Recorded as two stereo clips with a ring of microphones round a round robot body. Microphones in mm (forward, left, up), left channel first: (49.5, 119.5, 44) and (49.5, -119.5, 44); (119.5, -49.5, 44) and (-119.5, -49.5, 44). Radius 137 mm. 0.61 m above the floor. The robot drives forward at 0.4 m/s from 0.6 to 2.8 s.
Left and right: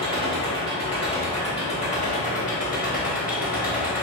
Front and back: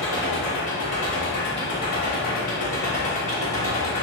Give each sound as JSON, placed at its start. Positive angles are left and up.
{"t": 0.0, "sound": "an engine running", "azimuth_deg": 25, "distance_m": 1.8}